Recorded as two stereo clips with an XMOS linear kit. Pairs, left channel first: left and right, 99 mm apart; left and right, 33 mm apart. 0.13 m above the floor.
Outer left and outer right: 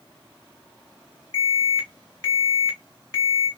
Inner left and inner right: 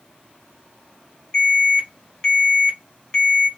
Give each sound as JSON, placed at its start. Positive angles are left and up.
{"t": 1.3, "sound": "an alarm", "side_deg": 25, "distance_m": 3.0}